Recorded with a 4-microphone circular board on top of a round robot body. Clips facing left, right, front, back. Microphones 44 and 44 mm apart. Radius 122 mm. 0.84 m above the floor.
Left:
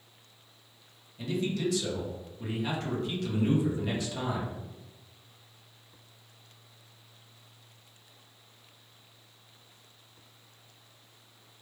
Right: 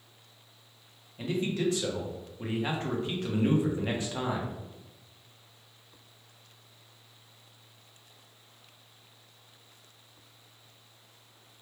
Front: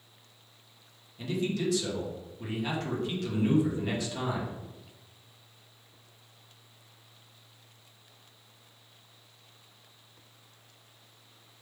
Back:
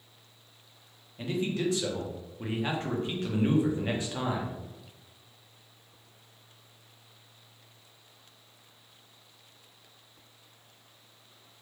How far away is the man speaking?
About 1.0 m.